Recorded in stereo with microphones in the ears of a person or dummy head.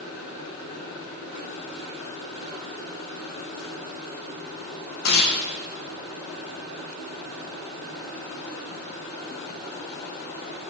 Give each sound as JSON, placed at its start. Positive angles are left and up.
{"t": 5.0, "sound": "tearing paper", "side_deg": 70, "distance_m": 0.7}